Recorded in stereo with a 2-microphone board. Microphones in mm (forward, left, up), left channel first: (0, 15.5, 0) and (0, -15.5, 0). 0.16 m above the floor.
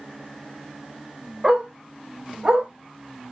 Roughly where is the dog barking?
Right.